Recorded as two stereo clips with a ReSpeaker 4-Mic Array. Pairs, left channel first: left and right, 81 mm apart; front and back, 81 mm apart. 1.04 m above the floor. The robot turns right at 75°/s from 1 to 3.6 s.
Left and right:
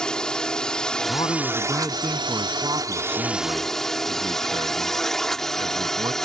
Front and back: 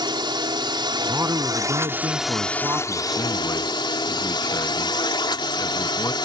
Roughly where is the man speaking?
Left.